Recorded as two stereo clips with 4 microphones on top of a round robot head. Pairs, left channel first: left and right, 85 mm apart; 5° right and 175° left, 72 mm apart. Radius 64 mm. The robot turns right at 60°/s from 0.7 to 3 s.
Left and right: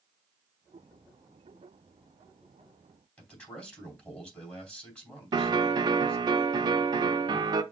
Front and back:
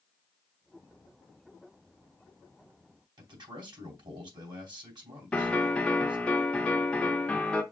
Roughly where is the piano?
Right.